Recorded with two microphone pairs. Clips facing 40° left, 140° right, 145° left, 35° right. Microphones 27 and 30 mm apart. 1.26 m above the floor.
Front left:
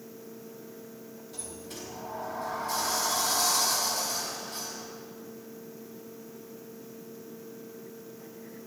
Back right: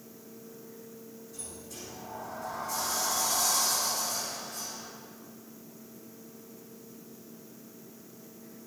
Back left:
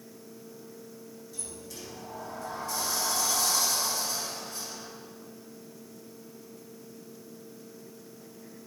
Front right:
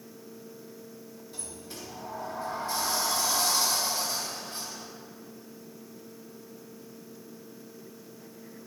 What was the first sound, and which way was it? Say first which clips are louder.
A sliding door: front left 5 dB, front right 1 dB; 20° left.